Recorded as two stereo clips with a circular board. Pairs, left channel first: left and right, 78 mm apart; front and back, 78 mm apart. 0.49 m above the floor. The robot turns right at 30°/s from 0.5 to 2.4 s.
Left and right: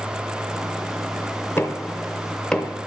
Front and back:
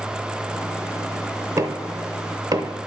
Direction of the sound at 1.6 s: 145° left.